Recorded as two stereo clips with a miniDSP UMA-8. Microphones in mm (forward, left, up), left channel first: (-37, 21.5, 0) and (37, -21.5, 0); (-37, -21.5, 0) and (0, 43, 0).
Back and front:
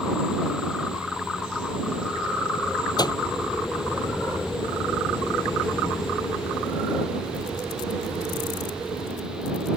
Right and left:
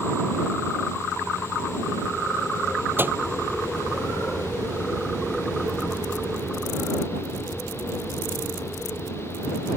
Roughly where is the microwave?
Behind left.